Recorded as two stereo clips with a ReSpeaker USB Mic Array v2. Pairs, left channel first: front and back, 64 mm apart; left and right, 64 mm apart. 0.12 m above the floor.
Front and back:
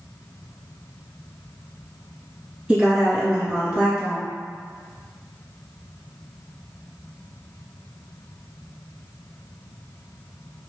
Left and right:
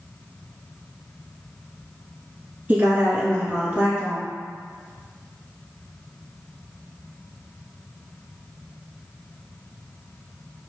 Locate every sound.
2.7 s a woman speaking: 120° right, 1.4 m